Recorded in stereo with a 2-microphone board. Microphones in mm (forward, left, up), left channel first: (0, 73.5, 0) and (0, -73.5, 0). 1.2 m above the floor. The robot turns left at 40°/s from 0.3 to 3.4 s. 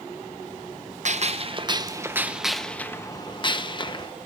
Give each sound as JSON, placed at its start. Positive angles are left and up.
{"t": 1.1, "sound": "a gunshot", "azimuth_deg": -120, "distance_m": 0.7}